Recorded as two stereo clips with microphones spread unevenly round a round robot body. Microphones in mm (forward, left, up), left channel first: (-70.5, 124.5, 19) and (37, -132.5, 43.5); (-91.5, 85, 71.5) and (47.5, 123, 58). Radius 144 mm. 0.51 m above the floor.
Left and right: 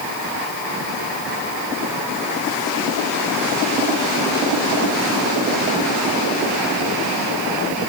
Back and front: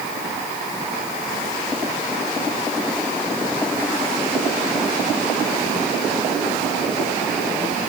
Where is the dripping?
No dripping in this recording.